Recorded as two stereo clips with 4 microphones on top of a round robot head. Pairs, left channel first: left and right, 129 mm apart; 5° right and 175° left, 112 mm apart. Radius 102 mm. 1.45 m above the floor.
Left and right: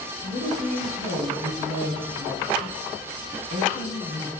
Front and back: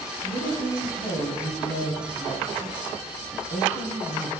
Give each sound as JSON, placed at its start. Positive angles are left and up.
{"t": 0.2, "sound": "a woman speaking", "azimuth_deg": -55, "distance_m": 4.0}